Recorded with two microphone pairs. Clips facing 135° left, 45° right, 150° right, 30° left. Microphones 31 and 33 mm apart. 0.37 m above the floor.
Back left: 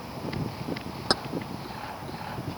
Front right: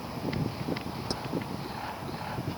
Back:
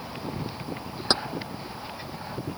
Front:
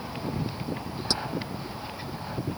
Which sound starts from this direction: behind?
Keys jangling, at 1.1 s.